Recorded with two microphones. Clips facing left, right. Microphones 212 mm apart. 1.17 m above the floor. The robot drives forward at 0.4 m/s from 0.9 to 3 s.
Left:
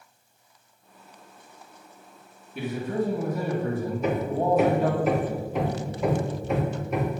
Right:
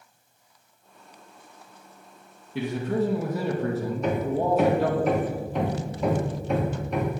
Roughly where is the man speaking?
Right.